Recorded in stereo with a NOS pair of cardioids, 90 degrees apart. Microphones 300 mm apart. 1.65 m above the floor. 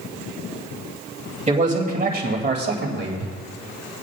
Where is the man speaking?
25° right, 3 m; by 3.3 s 45° right, 3 m.